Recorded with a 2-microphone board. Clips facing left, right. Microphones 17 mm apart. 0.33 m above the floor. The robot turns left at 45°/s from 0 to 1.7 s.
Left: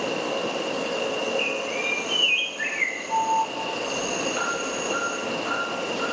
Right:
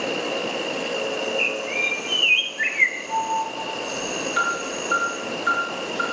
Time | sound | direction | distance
0.0 | an insect | 95° right | 1.7 m
1.4 | a bird | 50° right (ahead or behind) | 0.9 m
3.1 | an alarm | 60° right (ahead or behind) | 4.5 m